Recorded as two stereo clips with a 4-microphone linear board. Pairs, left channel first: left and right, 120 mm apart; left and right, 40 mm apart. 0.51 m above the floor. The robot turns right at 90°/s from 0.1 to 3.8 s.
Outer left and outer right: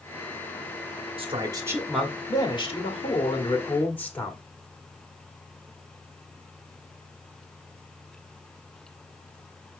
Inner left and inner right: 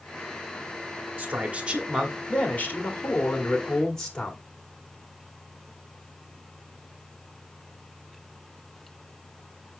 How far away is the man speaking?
About 1.6 m.